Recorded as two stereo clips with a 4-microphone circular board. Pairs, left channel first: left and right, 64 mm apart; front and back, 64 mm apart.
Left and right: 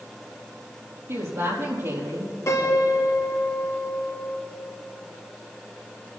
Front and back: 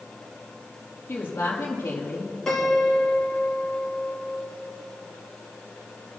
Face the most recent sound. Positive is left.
turn(degrees=80)